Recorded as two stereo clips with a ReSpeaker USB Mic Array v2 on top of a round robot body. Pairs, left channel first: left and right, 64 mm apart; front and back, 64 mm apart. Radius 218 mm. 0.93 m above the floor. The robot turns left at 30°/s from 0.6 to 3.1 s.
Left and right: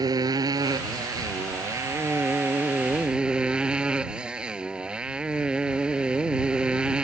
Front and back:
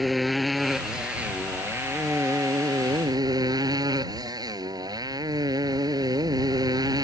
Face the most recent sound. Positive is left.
turn(degrees=-165)